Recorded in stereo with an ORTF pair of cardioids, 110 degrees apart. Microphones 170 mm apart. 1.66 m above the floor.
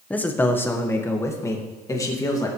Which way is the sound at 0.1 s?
10° left.